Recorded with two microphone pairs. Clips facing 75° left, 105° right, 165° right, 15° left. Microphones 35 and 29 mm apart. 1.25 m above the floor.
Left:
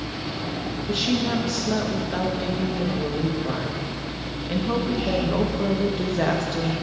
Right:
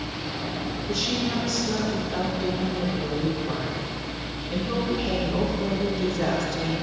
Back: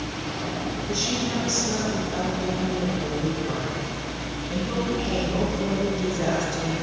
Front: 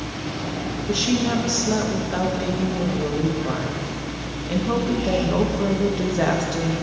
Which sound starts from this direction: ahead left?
A woman speaking, at 0.9 s.